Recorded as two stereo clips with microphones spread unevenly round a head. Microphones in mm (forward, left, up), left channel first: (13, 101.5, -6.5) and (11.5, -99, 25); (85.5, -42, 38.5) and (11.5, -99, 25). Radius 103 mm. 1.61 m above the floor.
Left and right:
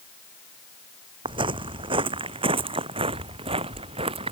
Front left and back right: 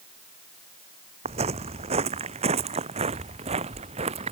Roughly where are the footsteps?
Behind right.